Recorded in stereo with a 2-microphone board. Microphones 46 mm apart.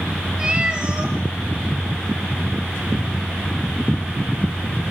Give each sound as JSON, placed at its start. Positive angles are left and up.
{"t": 0.4, "sound": "a cat meowing", "side_deg": -20, "distance_m": 2.5}